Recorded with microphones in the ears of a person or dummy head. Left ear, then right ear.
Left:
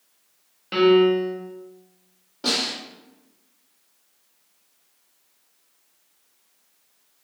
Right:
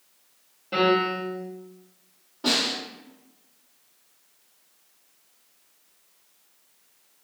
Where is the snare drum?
35° left (ahead or behind), 1.5 m.